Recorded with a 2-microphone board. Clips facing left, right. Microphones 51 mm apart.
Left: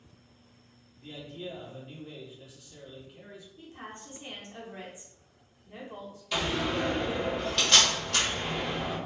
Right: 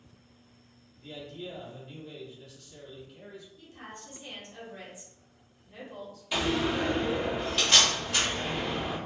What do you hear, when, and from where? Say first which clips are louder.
1.0 s a man speaking: even; 15° left (ahead or behind), 0.9 m
3.6 s a woman speaking: left 2 dB; 30° left (ahead or behind), 0.9 m
6.3 s a door slam: right 2 dB; 5° right (ahead or behind), 1.1 m